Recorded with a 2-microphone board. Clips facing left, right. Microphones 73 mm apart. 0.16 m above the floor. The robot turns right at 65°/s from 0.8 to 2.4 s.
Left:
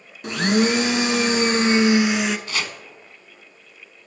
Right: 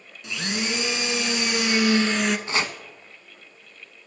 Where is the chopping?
25° right (ahead or behind), 0.6 m.